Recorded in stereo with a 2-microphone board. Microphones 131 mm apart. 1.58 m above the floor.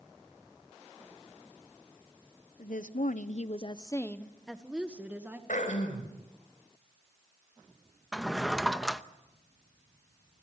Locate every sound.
2.6 s a woman speaking: 75° left (ahead or behind), 1.2 m; by 5.4 s 15° right (ahead or behind), 2 m
5.5 s throat clearing: 80° left, 4.5 m
8.1 s a drawer: centre (ahead or behind), 0.8 m